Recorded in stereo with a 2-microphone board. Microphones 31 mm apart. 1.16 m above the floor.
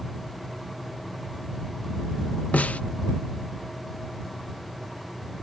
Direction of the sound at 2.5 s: 50° left (ahead or behind).